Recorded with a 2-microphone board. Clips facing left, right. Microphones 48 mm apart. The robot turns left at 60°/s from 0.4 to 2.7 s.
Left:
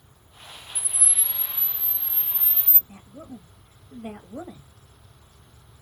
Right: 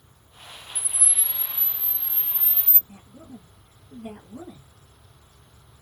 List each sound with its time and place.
0.8 s a camera shutter: 15° left, 1.9 m; by 2.8 s 100° right, 1.9 m
2.9 s a woman speaking: 70° left (ahead or behind), 1.0 m